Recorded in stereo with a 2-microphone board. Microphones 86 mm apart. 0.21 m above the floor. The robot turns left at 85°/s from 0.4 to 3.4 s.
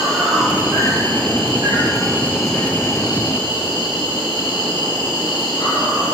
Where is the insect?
5° right, 5 m; by 6.1 s 100° left, 5 m.